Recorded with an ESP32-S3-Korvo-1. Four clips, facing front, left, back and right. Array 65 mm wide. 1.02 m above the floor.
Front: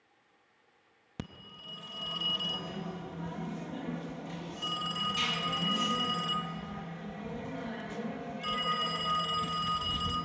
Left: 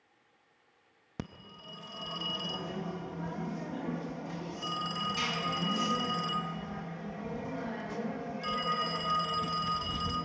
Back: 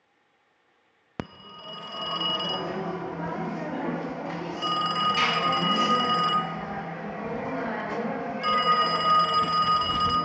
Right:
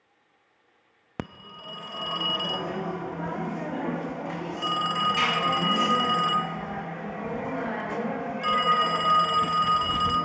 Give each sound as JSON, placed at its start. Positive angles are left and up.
{"t": 1.2, "sound": "a phone ringing", "azimuth_deg": -135, "distance_m": 0.5}